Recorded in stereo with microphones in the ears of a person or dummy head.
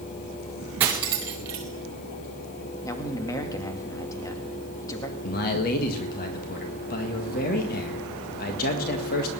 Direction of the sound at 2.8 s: 20° left (ahead or behind).